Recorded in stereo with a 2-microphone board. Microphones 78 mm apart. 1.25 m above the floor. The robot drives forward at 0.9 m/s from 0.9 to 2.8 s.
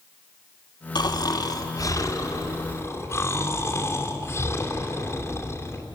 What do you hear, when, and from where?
0.9 s snoring: 65° left (ahead or behind), 1.9 m; by 5.8 s 35° left (ahead or behind), 3 m